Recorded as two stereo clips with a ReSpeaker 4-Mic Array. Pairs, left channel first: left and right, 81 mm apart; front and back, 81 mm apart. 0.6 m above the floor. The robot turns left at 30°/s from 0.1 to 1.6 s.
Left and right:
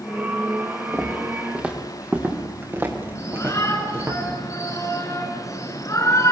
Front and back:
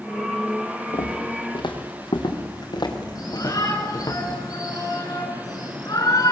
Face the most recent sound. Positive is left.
turn(degrees=45)